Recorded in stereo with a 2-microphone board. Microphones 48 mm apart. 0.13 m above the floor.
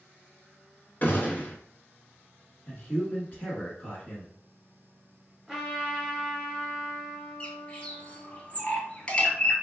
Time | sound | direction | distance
1.0 | a gunshot | 40° left (ahead or behind) | 0.9 m
2.7 | a man speaking | 35° left (ahead or behind) | 1.4 m
5.5 | a trumpet | centre (ahead or behind) | 1.7 m
7.4 | a bird | 25° left (ahead or behind) | 0.6 m